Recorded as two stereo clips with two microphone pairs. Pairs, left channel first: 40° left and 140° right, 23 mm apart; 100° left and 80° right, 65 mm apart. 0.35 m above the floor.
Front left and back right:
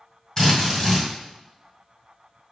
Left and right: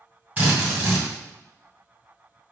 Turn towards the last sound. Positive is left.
turn(degrees=-25)